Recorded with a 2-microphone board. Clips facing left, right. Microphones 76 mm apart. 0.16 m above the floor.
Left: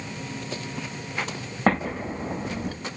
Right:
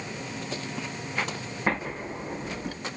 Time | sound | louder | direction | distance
1.7 | an explosion | left 6 dB | 70° left (ahead or behind) | 4 m